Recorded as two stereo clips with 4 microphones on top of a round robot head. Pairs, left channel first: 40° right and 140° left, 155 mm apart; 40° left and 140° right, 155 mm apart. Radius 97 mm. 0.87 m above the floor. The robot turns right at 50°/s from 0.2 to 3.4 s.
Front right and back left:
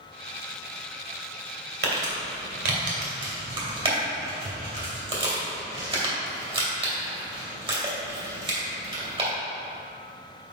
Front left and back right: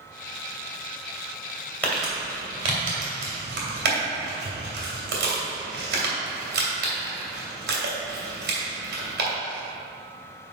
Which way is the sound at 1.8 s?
120° left.